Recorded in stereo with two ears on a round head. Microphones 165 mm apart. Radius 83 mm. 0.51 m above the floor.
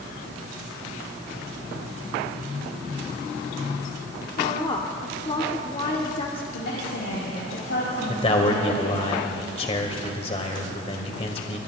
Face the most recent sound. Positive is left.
turn(degrees=35)  # may be behind; listen again after turning